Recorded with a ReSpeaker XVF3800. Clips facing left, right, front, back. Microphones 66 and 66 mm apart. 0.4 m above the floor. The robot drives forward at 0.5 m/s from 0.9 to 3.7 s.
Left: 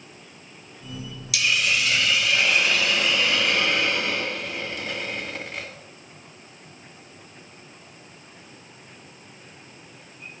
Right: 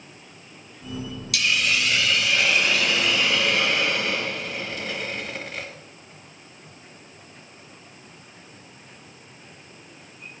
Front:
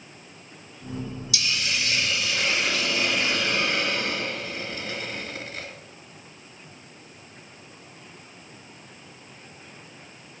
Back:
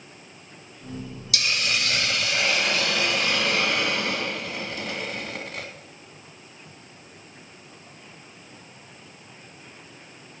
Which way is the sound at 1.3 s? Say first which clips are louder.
Even, back 3 dB; 175° left.